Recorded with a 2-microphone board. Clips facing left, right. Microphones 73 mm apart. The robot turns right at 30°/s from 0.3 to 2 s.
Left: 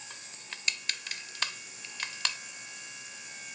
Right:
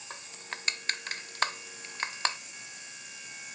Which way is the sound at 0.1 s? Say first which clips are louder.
Right 8 dB; 40° right (ahead or behind).